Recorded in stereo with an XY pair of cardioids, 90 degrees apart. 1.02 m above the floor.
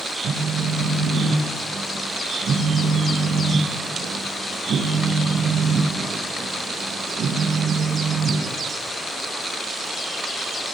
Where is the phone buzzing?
60° right, 0.7 m.